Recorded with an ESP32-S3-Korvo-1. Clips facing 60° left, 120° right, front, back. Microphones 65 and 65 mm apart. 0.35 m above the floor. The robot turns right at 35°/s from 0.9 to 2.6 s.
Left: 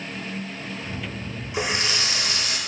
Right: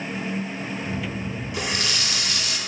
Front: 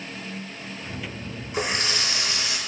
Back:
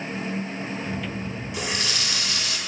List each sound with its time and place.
1.5 s a running tap: 10° left, 0.6 m; by 2.6 s 45° left, 0.6 m